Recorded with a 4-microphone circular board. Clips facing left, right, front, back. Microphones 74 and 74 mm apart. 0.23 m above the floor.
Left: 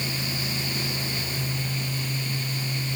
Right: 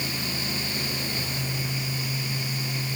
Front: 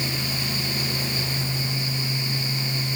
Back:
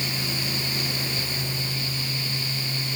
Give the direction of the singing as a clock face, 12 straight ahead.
No singing in this recording.